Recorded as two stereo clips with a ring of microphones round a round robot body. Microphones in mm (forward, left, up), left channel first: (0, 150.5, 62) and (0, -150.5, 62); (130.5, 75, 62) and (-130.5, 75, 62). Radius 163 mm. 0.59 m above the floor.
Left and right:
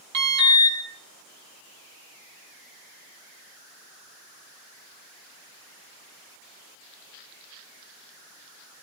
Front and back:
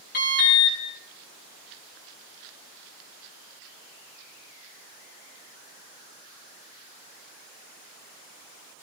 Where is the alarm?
60° right, 6.5 m.